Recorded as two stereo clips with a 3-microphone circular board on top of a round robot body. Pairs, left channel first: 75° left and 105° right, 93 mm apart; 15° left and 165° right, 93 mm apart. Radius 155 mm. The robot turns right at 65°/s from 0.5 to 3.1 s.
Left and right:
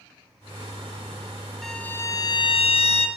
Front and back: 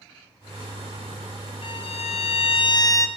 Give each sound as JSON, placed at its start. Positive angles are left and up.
{"t": 1.6, "sound": "a violin", "azimuth_deg": -15, "distance_m": 0.6}